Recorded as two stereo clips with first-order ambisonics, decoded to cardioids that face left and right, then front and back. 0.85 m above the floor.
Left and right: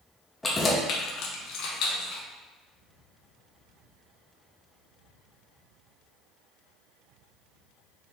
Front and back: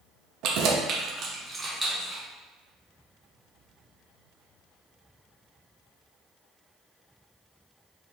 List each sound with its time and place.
0.4 s keys jangling: 170° left, 0.6 m; by 2.2 s 85° left, 1.1 m